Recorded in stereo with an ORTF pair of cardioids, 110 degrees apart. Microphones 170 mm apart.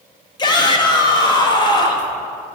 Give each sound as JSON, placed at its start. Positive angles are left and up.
{"t": 0.4, "sound": "a shout", "azimuth_deg": 25, "distance_m": 1.3}